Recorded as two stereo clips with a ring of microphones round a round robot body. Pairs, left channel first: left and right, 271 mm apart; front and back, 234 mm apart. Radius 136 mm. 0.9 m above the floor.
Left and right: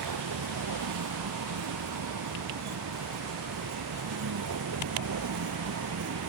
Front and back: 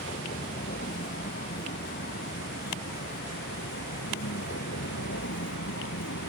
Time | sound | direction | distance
0.0 | a vehicle | 65° right | ?